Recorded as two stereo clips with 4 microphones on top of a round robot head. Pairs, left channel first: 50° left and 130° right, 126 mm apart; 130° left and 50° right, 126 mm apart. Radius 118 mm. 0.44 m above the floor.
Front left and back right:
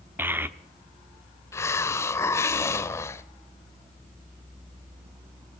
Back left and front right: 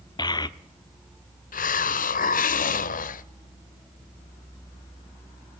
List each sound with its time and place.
0.2 s a child speaking: 165° left, 1.1 m
1.5 s a hiss: 120° left, 0.6 m